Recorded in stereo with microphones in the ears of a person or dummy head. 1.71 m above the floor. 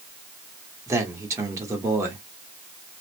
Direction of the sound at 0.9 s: 15° right (ahead or behind).